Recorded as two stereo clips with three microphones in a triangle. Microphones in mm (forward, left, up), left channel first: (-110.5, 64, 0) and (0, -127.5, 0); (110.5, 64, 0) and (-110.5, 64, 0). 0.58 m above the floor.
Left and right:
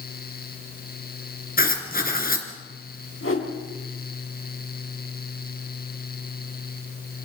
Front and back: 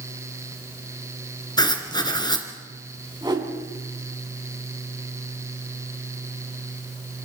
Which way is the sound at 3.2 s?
110° left.